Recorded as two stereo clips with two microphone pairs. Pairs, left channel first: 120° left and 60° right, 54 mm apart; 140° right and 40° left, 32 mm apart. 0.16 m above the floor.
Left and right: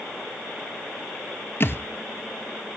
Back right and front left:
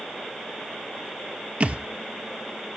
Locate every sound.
1.6 s a thud: 80° left, 0.9 m